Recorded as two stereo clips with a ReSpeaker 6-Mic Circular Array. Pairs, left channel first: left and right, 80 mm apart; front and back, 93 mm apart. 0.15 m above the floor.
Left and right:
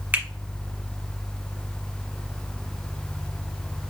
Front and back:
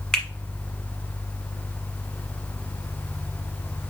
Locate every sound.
0.1 s a finger snap: 70° right, 1.1 m